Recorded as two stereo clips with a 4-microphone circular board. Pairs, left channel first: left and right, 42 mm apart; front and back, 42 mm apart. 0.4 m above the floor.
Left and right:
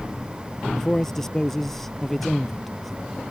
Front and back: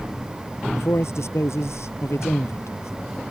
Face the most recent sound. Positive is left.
turn(degrees=0)